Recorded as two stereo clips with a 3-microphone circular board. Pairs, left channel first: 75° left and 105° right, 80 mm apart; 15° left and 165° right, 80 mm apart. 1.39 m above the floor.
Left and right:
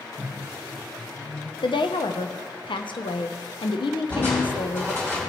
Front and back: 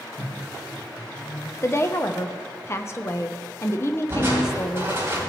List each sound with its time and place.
0.2 s a microwave: 10° left, 1.6 m
1.6 s a woman speaking: 75° left, 0.8 m
4.1 s crushing: 135° left, 4 m